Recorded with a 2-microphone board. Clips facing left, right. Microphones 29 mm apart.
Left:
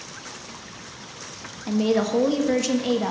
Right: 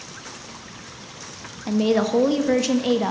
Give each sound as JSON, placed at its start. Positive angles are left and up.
{"t": 1.7, "sound": "a woman speaking", "side_deg": -10, "distance_m": 1.0}